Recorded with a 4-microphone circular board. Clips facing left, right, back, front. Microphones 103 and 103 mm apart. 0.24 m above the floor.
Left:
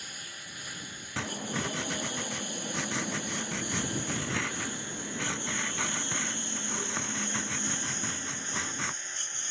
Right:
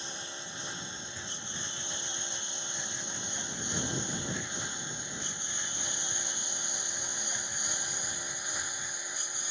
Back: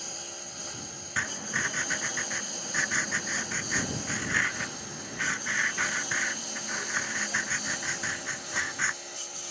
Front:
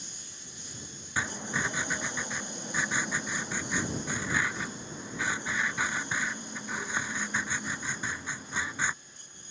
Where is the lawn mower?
155° right; by 9.5 s 170° right.